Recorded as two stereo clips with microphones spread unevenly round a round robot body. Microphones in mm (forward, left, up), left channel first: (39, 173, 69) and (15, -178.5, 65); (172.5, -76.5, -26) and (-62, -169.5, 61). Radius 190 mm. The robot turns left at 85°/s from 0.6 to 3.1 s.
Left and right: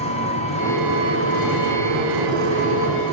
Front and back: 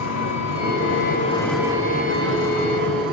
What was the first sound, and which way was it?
An engine running, 15° left.